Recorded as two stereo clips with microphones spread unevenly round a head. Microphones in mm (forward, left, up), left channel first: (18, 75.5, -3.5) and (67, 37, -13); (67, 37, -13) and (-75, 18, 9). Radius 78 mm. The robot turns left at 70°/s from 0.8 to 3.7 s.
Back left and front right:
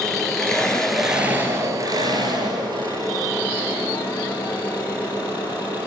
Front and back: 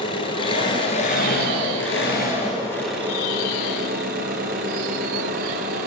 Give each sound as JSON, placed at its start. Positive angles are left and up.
{"t": 0.0, "sound": "an engine running", "azimuth_deg": 65, "distance_m": 8.0}